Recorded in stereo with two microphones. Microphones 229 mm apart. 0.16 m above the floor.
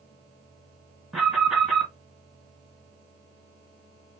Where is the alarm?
Centre (ahead or behind), 1.7 m.